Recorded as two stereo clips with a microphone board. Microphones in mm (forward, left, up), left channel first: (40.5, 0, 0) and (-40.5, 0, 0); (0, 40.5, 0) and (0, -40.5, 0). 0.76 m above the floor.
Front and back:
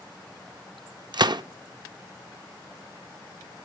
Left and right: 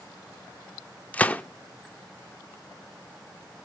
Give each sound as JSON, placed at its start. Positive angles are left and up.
{"t": 1.1, "sound": "a gunshot", "azimuth_deg": 160, "distance_m": 0.5}